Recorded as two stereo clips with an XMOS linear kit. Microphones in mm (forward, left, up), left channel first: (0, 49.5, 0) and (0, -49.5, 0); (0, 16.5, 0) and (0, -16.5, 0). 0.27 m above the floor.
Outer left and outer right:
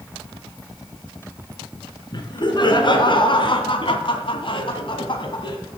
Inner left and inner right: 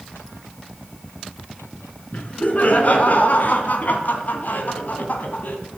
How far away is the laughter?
About 3 m.